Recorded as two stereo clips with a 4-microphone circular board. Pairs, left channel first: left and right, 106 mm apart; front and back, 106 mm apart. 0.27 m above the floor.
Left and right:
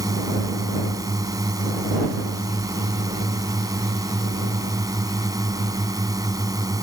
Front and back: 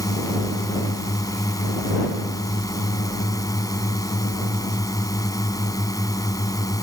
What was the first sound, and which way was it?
A drone, 45° right.